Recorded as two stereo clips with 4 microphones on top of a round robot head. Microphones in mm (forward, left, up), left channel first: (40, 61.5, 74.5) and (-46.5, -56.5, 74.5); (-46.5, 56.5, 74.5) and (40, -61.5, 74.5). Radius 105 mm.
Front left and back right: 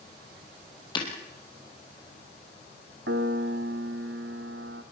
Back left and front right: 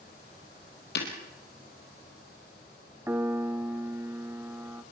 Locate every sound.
0.9 s breaking glass: 115° left, 3.5 m
3.1 s a piano: 130° right, 0.9 m